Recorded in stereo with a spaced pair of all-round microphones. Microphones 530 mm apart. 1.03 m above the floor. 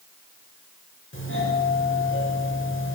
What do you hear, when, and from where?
1.1 s a doorbell: 20° left (ahead or behind), 6 m